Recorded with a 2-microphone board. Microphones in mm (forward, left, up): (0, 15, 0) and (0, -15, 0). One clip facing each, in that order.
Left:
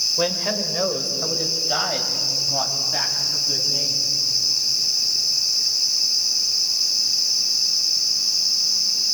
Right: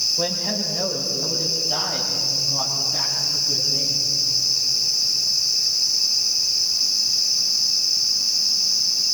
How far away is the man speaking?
About 3 m.